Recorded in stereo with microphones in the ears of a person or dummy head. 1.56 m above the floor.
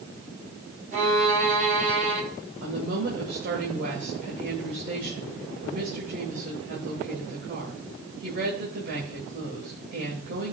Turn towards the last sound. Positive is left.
turn(degrees=-60)  # may be behind; listen again after turning